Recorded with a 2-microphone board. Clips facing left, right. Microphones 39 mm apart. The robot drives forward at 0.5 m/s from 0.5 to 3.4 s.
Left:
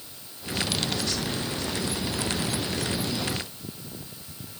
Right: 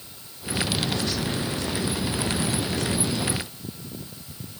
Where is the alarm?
No alarm in this recording.